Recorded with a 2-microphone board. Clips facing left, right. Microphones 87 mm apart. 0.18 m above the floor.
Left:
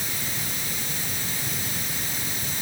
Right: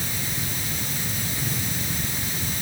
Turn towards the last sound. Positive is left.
No sound to turn to.